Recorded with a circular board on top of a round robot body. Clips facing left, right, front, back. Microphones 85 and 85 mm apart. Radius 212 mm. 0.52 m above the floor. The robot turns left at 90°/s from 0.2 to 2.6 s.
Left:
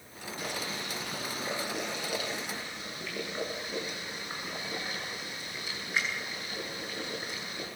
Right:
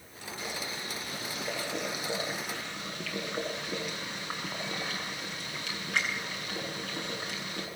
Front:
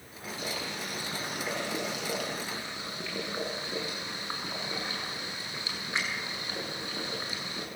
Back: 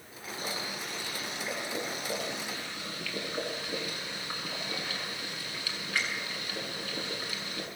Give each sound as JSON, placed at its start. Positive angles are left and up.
{"t": 0.4, "sound": "boiling", "azimuth_deg": 130, "distance_m": 7.0}